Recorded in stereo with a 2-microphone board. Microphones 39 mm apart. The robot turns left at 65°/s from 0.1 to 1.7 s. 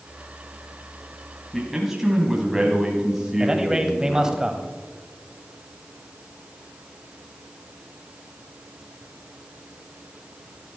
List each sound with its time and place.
1.5 s a man speaking: 5° left (ahead or behind), 2 m; by 4.4 s 5° right (ahead or behind), 2 m
3.4 s a man speaking: 20° right (ahead or behind), 1.3 m